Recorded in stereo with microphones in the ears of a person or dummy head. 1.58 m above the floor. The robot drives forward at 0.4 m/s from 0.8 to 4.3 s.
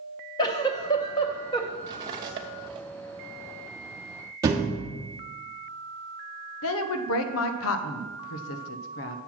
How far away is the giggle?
About 0.6 m.